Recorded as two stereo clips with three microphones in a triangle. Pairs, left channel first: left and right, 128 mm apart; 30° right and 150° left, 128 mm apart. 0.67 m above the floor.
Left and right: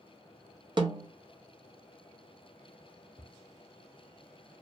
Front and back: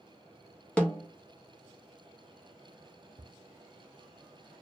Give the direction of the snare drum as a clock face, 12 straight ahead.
4 o'clock.